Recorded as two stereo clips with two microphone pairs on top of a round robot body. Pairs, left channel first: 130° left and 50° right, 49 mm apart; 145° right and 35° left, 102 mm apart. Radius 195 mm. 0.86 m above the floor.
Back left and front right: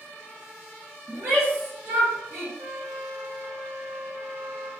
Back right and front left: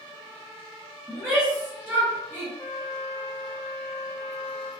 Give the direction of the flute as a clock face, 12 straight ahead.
2 o'clock.